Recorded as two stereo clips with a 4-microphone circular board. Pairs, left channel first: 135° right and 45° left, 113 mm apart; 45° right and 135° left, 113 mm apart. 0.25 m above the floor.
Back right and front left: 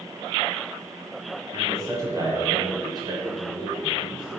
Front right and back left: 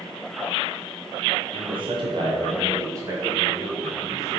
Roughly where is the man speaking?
Left.